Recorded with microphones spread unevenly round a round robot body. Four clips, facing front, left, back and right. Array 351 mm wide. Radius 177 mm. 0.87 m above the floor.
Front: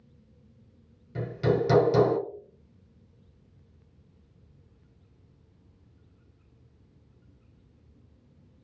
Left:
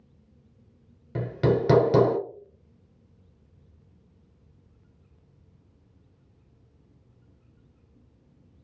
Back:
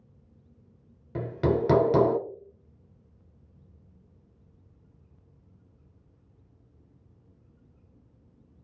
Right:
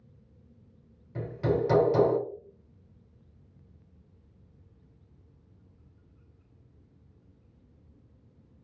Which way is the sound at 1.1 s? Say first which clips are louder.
Left 4 dB, even; 115° left.